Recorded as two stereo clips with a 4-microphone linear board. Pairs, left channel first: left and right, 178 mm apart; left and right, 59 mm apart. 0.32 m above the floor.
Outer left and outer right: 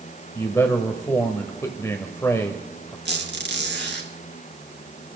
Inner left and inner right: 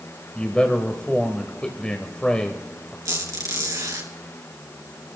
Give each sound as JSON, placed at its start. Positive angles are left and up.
{"t": 0.3, "sound": "a man speaking", "side_deg": 15, "distance_m": 1.2}
{"t": 3.0, "sound": "a squeak", "side_deg": -80, "distance_m": 3.0}